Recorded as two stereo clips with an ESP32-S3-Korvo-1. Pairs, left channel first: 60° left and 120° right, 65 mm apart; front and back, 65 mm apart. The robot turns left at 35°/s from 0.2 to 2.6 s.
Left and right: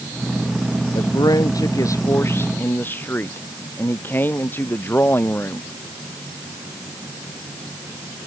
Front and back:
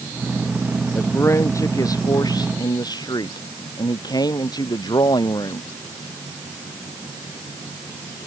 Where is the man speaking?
60° left; by 5.7 s straight ahead.